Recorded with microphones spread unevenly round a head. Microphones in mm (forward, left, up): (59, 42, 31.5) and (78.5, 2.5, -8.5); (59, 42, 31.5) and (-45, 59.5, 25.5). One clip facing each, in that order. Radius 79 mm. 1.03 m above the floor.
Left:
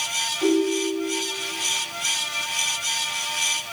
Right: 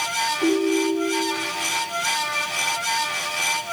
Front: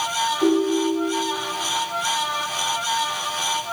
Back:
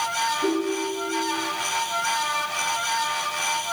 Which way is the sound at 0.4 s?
Straight ahead.